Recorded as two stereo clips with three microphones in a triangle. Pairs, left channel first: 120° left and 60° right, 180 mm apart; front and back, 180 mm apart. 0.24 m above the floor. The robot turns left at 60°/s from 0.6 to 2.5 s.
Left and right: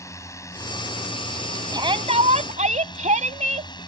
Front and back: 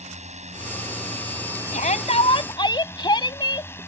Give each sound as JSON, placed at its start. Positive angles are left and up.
{"t": 0.0, "sound": "a drone", "azimuth_deg": -175}
{"t": 1.7, "sound": "a shout", "azimuth_deg": -5}